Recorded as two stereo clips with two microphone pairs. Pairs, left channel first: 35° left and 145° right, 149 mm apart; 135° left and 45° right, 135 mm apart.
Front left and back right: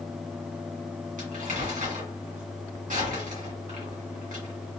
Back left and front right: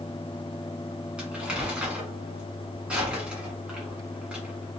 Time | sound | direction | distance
1.2 | crumpling | 130° right | 1.9 m